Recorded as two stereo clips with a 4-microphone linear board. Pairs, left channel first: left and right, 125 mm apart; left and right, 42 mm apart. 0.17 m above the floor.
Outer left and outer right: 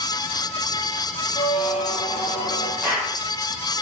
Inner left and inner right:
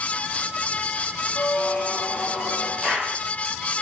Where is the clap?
25° right (ahead or behind), 6.5 m.